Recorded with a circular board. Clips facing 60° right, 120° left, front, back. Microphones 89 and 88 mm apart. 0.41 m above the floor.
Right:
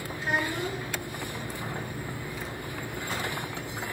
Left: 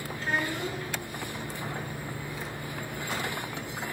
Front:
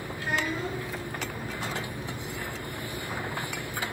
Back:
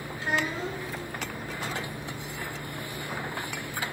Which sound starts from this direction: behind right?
A child speaking, at 0.2 s.